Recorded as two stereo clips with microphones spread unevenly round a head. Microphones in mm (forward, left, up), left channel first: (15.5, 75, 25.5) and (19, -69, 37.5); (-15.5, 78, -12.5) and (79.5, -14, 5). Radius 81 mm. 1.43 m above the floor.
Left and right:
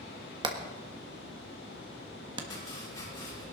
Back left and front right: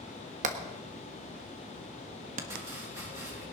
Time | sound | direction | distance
0.4 | hammering | 30° right | 1.4 m
2.5 | chopping | 20° left | 8.5 m